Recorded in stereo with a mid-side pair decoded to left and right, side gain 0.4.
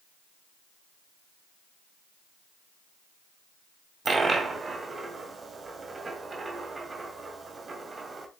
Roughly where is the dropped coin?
Ahead right.